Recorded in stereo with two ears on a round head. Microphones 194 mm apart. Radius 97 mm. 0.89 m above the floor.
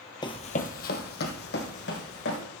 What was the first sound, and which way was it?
Running footsteps, 20° left (ahead or behind).